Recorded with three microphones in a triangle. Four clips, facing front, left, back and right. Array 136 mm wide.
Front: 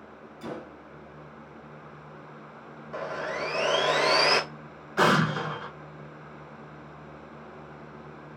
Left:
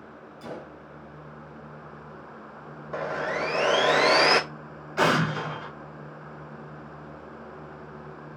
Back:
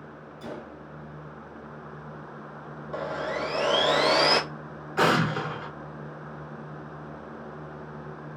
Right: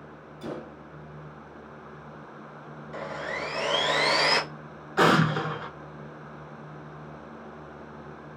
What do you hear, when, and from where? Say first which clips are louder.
0.4 s a gunshot: right 2 dB, front 1 dB; 45° right, 1.6 m
2.9 s sawing: left 5 dB, back 2 dB; 110° left, 0.6 m
5.0 s an explosion: right 2 dB, even; 75° right, 1.5 m